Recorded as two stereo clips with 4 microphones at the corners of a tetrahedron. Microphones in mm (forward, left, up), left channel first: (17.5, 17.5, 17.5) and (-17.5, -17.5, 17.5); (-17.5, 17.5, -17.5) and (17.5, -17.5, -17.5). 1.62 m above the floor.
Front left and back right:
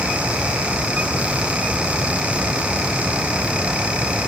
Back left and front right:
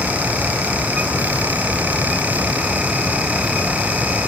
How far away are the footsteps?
I don't hear footsteps.